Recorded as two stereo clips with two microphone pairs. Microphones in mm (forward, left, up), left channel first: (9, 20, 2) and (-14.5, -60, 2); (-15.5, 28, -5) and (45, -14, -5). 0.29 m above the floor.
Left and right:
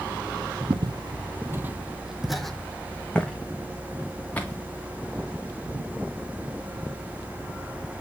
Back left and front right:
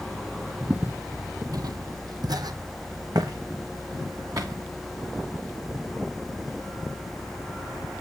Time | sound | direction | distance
0.7 | footsteps | 100° right | 0.6 m